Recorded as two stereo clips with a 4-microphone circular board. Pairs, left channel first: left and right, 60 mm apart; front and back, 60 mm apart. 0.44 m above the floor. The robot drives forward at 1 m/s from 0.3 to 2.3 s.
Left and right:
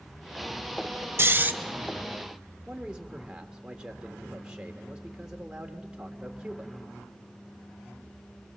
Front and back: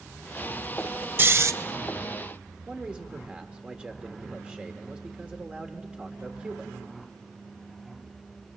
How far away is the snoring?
About 0.6 m.